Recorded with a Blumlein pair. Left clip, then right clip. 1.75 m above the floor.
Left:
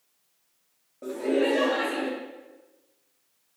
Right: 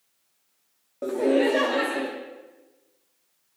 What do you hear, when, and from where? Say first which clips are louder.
1.0 s laughter: right 4 dB; 25° right, 0.7 m; by 2.1 s 70° right, 1.7 m